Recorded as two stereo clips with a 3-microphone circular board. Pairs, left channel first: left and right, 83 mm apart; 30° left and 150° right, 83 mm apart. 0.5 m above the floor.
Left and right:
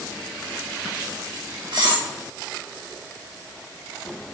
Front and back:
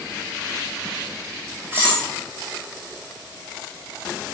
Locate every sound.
1.7 s cutlery clinking: 90° right, 2.5 m